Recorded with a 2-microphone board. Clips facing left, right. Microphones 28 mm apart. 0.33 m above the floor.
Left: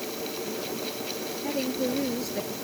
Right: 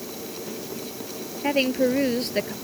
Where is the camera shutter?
I don't hear a camera shutter.